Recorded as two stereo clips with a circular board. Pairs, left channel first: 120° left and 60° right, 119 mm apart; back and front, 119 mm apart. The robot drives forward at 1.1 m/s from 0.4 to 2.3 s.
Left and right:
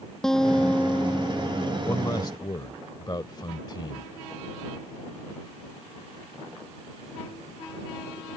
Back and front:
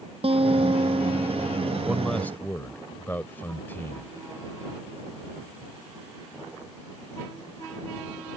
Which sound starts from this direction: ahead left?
A guitar, at 0.2 s.